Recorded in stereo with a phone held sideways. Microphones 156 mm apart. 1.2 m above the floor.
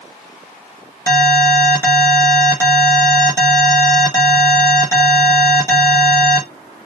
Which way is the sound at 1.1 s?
20° left (ahead or behind).